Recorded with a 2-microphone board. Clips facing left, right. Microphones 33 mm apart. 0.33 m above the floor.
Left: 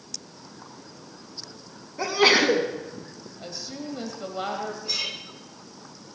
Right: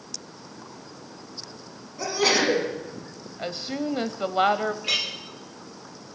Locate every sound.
2.0 s a sneeze: 30° left (ahead or behind), 3 m
3.4 s a woman speaking: 45° right (ahead or behind), 1.3 m
4.8 s a clink: 70° right (ahead or behind), 4 m